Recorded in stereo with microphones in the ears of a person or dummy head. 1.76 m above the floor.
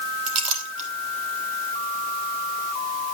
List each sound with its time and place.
0.3 s a clink: 40° right (ahead or behind), 1.3 m